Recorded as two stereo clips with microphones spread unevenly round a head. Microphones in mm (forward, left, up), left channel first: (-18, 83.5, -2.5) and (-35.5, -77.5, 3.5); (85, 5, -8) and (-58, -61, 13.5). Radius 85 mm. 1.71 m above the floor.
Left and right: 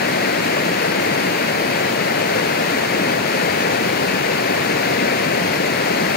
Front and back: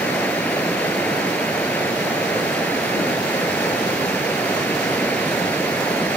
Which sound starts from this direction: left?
Running water, at 0.0 s.